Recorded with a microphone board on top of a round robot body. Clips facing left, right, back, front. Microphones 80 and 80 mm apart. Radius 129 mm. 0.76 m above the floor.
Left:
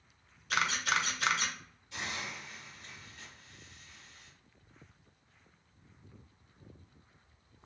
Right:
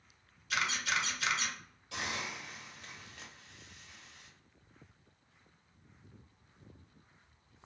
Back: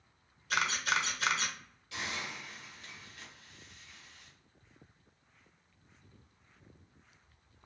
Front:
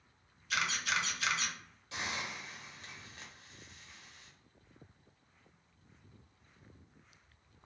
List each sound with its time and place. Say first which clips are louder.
0.5 s a camera shutter: left 3 dB, back 3 dB; 135° left, 0.6 m
1.9 s a hiss: right 1 dB, even; 60° right, 0.7 m